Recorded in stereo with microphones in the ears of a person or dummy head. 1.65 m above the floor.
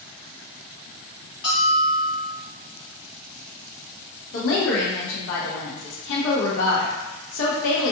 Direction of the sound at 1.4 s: 30° left (ahead or behind).